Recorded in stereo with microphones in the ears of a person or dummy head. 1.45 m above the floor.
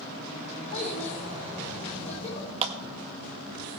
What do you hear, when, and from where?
0.7 s a child speaking: 35° left (ahead or behind), 4.5 m
2.6 s a clap: 35° right (ahead or behind), 1.6 m